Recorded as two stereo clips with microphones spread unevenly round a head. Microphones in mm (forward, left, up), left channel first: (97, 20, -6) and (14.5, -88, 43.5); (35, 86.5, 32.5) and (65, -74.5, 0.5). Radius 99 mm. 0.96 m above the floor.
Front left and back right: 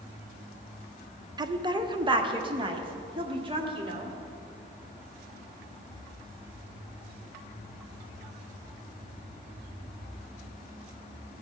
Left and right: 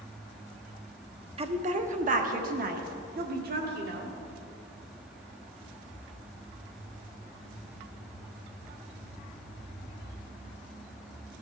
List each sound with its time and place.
1.4 s a woman speaking: 55° right, 0.8 m; by 4.2 s 70° right, 2 m